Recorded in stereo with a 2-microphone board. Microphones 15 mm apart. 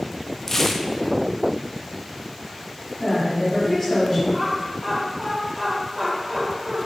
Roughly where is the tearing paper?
Left.